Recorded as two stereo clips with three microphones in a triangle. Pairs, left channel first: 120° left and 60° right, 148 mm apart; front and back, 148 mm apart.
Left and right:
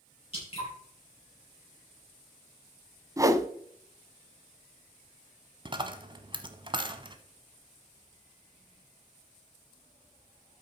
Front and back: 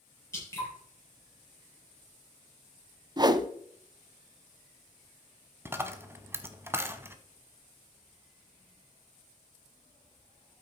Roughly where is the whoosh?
Behind right.